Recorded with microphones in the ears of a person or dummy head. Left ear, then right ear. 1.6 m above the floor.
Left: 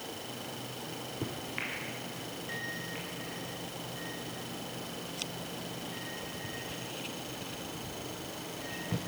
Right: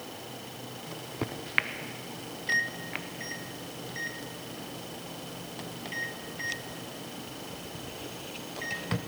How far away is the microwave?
About 0.7 m.